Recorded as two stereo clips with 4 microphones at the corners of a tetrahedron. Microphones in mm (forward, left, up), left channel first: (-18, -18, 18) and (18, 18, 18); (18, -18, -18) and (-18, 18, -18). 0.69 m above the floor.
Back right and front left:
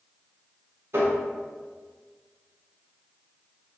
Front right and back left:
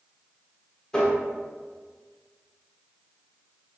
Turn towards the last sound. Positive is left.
turn(degrees=30)